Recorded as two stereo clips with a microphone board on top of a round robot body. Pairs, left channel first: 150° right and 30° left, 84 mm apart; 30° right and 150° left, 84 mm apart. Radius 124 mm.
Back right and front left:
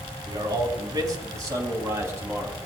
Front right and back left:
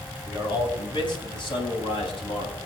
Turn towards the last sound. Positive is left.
turn(degrees=-35)